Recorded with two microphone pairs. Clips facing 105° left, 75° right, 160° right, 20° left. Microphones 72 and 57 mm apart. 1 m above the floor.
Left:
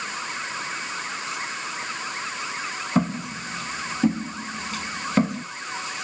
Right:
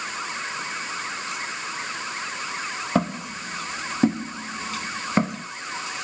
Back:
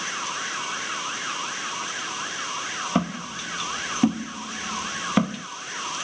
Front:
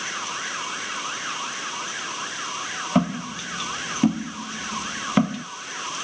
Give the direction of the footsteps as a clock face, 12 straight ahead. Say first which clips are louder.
Left 1 dB, front 5 dB; 2 o'clock.